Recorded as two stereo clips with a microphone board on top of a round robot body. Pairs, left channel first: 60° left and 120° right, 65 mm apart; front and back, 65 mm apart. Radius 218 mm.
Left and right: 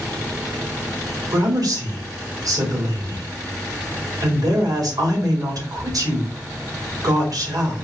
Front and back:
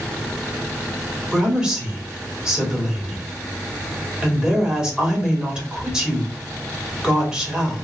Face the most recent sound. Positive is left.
turn(degrees=-105)